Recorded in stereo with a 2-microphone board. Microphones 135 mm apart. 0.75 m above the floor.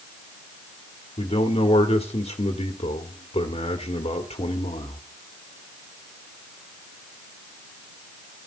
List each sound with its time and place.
1.2 s a man speaking: 55° left (ahead or behind), 1.6 m